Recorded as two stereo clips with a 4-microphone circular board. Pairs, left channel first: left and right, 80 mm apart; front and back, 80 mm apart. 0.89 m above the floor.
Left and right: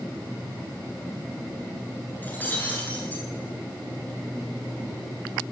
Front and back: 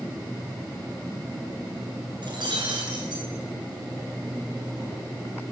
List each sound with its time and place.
2.2 s breaking glass: 155° left, 8.5 m